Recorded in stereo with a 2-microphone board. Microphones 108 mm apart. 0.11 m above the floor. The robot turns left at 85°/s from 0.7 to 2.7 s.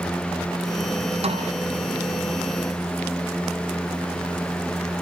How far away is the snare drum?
About 5.5 m.